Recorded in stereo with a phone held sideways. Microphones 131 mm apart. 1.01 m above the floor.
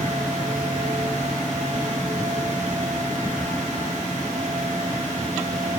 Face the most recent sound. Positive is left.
turn(degrees=-65)  # may be behind; listen again after turning